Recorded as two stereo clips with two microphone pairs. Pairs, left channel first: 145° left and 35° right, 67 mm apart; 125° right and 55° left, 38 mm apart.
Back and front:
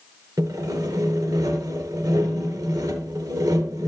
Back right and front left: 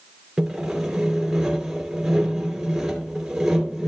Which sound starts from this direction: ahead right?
Sawing, at 0.4 s.